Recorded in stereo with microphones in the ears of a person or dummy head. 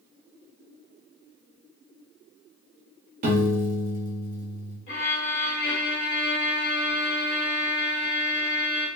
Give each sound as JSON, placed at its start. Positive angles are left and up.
{"t": 3.2, "sound": "a piano", "side_deg": -40, "distance_m": 0.5}
{"t": 4.9, "sound": "a violin", "side_deg": 35, "distance_m": 0.6}